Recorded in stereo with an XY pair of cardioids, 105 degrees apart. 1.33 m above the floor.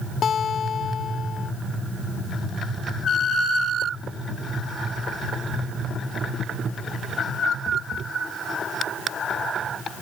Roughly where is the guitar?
Ahead left.